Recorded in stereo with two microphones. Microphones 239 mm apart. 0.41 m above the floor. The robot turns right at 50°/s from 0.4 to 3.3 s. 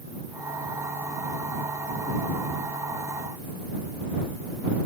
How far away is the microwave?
No microwave in this recording.